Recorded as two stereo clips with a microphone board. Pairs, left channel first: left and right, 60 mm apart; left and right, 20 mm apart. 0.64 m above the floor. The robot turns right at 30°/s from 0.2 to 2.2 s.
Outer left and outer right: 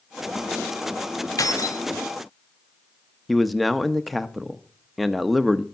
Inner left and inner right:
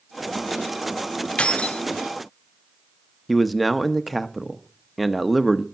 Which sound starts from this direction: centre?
A man speaking, at 3.3 s.